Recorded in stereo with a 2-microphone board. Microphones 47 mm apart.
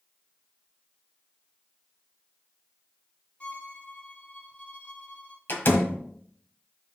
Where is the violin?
30° left (ahead or behind), 0.8 m.